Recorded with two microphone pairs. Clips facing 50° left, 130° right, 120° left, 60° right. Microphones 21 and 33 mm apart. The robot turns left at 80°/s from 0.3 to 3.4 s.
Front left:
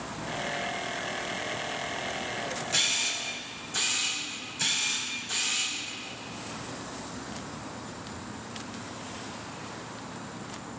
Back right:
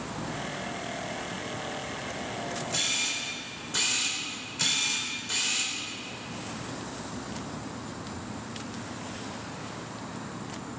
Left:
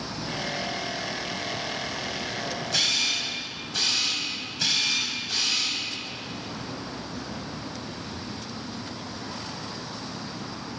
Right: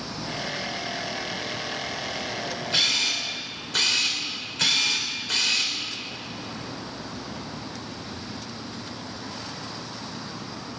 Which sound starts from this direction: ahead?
A camera shutter, at 2.7 s.